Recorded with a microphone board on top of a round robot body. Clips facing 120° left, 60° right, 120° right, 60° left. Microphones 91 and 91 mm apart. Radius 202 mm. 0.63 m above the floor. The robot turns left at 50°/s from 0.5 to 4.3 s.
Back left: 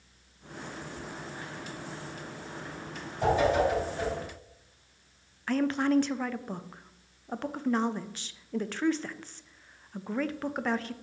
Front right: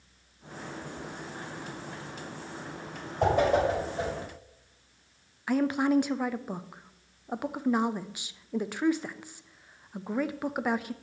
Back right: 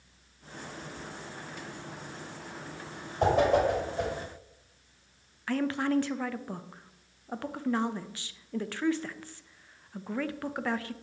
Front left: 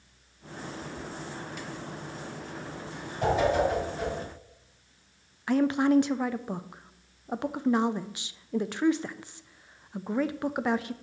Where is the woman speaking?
10° left, 0.5 m.